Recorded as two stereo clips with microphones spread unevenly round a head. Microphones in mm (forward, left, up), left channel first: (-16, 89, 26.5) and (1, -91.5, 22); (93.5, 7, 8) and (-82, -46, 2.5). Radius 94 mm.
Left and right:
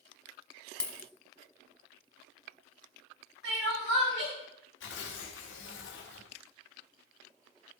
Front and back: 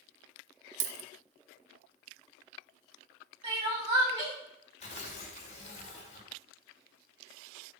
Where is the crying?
105° right, 6.5 m.